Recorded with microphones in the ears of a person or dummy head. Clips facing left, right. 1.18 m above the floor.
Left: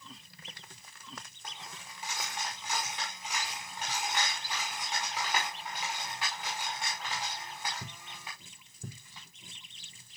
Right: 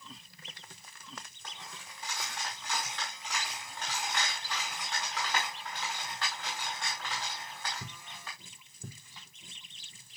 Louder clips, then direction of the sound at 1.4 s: Left 1 dB; 15° left (ahead or behind).